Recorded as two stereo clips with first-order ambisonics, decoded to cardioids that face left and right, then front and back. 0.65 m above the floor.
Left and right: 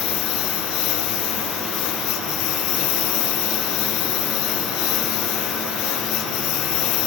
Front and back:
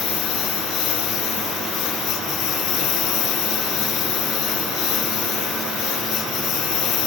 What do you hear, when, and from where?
0.0 s a lawn mower: 55° left